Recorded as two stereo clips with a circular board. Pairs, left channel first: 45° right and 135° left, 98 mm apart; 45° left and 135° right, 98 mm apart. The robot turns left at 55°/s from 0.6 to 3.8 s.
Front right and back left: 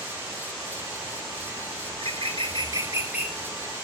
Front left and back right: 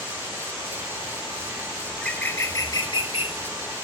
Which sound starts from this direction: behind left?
A bird, at 1.9 s.